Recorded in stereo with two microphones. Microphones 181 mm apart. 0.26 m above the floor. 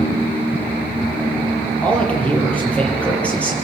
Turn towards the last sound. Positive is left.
turn(degrees=5)  # may be behind; listen again after turning